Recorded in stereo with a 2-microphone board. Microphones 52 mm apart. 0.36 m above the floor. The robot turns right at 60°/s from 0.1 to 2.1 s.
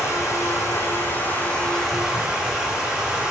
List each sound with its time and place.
0.0 s running water: 70° left, 6.5 m; by 3.3 s 170° right, 6.5 m